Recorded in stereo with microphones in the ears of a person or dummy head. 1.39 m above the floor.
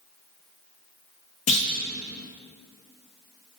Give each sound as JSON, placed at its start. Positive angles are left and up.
{"t": 1.5, "sound": "a clunk", "side_deg": 30, "distance_m": 1.2}